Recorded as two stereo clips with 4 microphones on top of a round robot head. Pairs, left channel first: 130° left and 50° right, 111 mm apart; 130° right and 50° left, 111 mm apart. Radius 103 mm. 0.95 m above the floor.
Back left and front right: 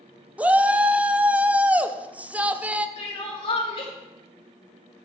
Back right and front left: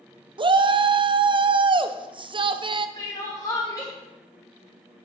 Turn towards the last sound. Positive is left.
turn(degrees=170)